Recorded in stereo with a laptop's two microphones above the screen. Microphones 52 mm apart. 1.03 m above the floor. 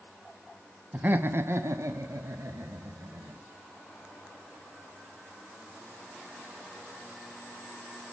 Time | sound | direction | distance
0.9 | laughter | 30° right (ahead or behind) | 1.2 m